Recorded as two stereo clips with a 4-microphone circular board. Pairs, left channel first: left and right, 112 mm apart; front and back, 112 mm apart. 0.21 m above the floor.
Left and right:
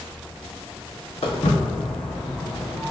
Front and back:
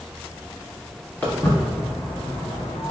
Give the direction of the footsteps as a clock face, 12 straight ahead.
10 o'clock.